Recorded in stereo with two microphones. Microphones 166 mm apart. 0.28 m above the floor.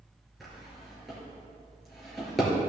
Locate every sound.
0.4 s a drawer: centre (ahead or behind), 3 m